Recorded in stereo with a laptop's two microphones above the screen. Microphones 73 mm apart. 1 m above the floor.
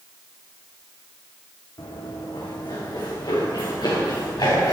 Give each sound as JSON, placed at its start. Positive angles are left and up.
{"t": 1.8, "sound": "running footsteps", "side_deg": 70, "distance_m": 3.5}